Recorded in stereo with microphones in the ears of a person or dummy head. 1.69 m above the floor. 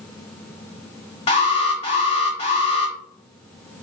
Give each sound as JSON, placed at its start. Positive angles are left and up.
{"t": 1.3, "sound": "an alarm", "side_deg": 30, "distance_m": 1.2}